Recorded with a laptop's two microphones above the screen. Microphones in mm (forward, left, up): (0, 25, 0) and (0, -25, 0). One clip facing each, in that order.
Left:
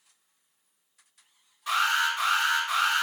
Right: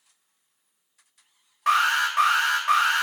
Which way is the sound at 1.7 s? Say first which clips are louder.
Right 4 dB; 65° right (ahead or behind).